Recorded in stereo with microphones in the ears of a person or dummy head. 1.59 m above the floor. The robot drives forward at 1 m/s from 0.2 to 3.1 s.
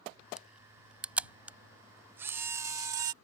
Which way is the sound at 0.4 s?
10° right (ahead or behind).